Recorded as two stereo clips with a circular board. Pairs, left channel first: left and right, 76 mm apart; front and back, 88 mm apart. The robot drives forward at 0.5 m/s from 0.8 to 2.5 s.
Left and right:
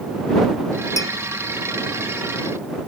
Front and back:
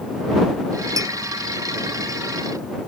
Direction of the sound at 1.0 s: 135° left.